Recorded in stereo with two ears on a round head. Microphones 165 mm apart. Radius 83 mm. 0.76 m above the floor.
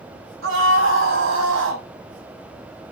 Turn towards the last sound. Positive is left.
turn(degrees=-80)